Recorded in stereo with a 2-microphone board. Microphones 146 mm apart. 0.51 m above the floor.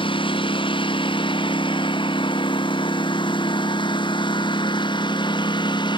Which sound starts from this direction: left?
A lawn mower, at 0.0 s.